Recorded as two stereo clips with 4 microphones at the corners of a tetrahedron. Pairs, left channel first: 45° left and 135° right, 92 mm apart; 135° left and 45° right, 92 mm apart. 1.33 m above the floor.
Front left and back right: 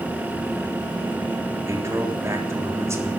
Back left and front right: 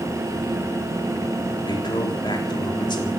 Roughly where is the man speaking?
Behind.